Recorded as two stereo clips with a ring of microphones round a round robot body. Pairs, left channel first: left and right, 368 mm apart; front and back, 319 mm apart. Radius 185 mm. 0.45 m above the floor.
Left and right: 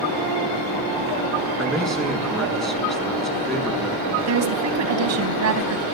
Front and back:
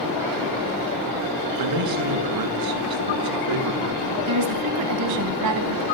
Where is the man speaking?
Straight behind, 5.5 m.